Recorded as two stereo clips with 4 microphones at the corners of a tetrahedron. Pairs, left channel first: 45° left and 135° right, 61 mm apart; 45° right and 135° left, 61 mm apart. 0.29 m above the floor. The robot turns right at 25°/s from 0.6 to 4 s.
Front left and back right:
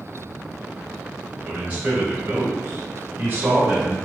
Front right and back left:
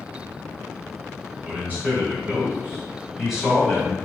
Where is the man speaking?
165° left, 1.7 m; by 4.0 s 130° right, 1.7 m.